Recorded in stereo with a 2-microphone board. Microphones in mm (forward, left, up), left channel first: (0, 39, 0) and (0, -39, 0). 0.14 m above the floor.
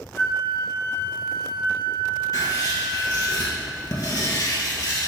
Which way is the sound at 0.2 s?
30° left (ahead or behind).